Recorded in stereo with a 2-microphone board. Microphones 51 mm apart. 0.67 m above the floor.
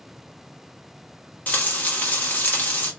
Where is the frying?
35° left (ahead or behind), 1.1 m.